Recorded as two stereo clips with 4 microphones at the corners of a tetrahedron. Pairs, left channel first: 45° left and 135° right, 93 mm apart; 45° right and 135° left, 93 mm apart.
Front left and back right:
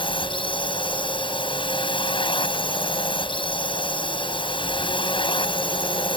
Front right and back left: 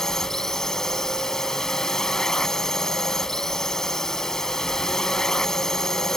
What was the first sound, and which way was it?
A drone, 40° left.